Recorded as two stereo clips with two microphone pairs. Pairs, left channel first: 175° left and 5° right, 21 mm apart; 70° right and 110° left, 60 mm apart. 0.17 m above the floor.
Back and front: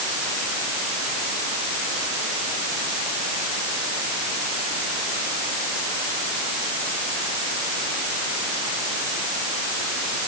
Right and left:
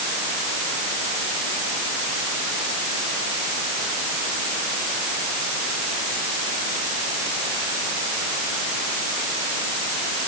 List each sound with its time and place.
Only background noise.